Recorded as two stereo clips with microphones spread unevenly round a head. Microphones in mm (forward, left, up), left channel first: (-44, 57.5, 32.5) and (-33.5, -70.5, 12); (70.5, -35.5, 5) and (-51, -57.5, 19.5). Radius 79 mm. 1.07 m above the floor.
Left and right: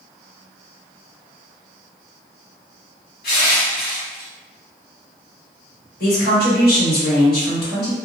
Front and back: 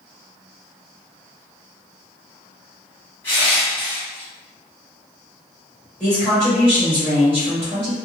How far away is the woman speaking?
About 1.5 m.